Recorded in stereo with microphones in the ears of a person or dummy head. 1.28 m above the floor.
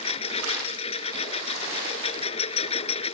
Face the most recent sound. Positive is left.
turn(degrees=30)  # may be behind; listen again after turning